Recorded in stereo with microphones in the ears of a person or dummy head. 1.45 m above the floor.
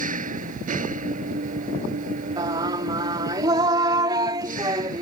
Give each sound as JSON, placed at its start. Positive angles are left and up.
{"t": 0.0, "sound": "an engine running", "side_deg": -40}
{"t": 2.4, "sound": "singing", "side_deg": -20}